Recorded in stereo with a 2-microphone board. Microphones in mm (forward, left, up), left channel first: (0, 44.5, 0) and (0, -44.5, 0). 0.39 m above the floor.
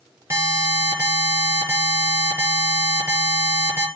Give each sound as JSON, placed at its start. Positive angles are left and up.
{"t": 0.3, "sound": "an alarm", "side_deg": -30, "distance_m": 6.5}